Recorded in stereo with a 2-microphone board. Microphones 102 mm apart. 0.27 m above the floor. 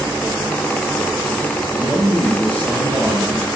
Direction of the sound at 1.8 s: 55° right (ahead or behind).